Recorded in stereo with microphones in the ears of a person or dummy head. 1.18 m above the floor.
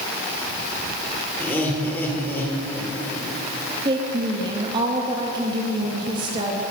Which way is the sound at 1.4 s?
10° left (ahead or behind).